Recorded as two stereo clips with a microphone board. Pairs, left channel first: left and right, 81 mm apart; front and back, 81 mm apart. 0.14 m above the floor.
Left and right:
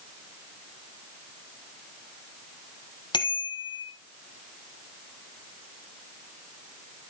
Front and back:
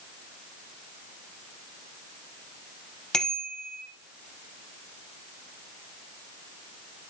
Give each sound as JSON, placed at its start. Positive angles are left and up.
{"t": 3.1, "sound": "a bicycle bell", "azimuth_deg": 80, "distance_m": 3.5}